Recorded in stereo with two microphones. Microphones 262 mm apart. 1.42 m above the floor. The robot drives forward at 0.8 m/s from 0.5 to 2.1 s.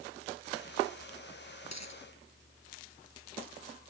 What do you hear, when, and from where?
1.7 s a dropped coin: 85° left; by 2.0 s 80° left